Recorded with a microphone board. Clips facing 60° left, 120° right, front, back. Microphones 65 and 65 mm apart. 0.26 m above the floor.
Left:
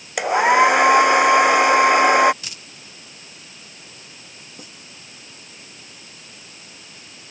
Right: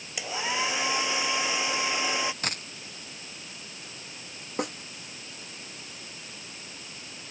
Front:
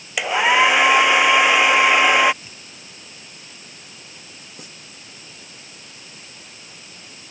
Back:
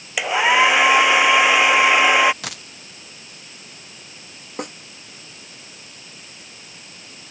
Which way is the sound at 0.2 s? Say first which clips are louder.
Left 16 dB, even; 90° left.